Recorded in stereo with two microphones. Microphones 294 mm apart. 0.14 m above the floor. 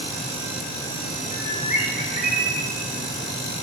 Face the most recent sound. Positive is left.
turn(degrees=30)  # may be behind; listen again after turning